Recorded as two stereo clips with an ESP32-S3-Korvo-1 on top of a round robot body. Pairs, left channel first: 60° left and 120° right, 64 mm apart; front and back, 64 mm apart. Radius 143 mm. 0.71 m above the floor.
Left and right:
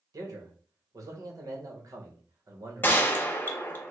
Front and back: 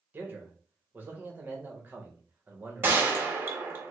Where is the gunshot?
120° left, 0.7 m.